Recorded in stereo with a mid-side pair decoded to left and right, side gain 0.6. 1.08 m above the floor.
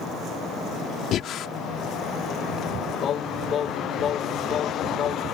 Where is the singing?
45° left.